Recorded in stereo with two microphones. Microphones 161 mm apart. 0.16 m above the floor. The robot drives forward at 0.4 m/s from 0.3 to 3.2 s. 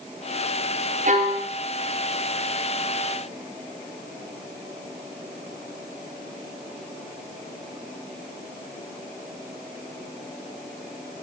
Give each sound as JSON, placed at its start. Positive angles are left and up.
{"t": 1.1, "sound": "a violin", "side_deg": -50, "distance_m": 4.5}